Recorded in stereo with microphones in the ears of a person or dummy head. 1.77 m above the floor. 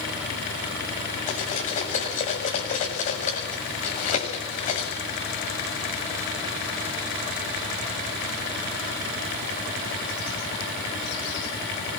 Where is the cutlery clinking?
40° left (ahead or behind), 7 m.